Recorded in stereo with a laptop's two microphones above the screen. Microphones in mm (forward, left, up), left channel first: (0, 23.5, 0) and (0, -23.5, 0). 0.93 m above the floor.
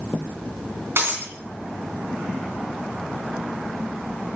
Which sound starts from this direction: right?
Breaking glass, at 1.0 s.